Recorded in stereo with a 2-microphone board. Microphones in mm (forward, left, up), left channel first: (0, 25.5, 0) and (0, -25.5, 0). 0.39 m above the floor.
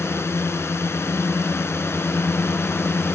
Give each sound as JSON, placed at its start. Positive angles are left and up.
{"t": 0.0, "sound": "a drone", "side_deg": 55}